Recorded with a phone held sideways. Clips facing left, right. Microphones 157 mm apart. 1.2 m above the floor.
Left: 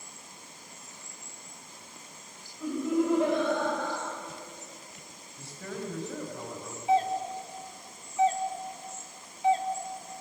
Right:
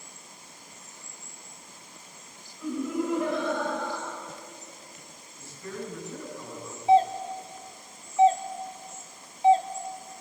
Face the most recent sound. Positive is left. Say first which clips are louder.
# right 5 dB
turn(degrees=-30)  # may be behind; listen again after turning